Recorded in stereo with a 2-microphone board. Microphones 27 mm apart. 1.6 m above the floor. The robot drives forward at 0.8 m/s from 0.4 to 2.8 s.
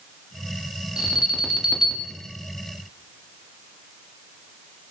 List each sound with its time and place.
1.0 s an alarm: 35° right (ahead or behind), 3.5 m; by 2.1 s 30° right (ahead or behind), 4.5 m